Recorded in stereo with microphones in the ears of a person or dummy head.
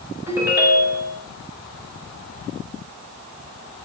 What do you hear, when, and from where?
0.3 s a ringtone: 15° right (ahead or behind), 6 m